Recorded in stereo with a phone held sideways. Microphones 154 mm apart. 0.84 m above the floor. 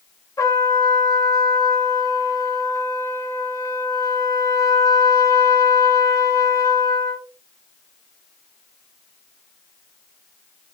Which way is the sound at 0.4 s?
20° left (ahead or behind).